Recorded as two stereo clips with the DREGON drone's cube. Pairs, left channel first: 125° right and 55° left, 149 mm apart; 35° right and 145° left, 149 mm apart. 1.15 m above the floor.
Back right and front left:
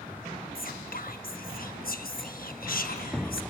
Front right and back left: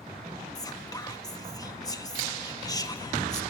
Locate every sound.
0.6 s whispering: 100° right, 1.2 m